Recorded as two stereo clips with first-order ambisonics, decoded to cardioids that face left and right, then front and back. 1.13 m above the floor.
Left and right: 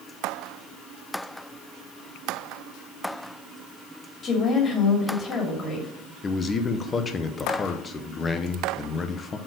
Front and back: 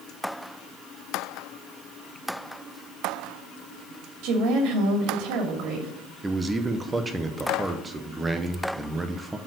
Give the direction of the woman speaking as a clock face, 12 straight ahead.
7 o'clock.